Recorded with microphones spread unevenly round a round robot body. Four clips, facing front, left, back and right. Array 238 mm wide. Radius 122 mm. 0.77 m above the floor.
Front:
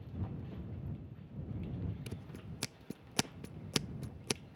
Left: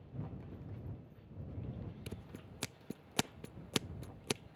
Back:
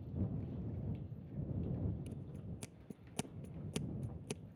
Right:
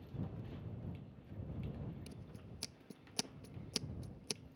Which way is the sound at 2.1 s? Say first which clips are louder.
Left 4 dB, front 1 dB; 50° left.